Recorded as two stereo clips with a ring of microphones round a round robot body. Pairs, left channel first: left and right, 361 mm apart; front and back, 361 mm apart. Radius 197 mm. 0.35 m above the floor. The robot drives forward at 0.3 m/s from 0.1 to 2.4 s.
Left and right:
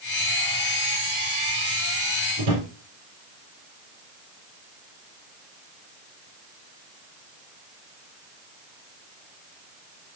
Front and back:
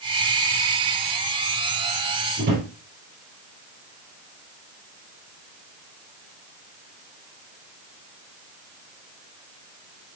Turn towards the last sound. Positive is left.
turn(degrees=-115)